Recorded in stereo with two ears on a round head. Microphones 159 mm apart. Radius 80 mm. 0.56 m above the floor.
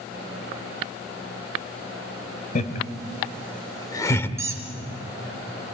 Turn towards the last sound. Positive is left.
turn(degrees=-15)  # may be behind; listen again after turning